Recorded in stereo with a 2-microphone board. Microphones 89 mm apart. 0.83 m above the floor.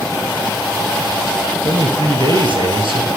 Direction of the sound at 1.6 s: 75° right (ahead or behind).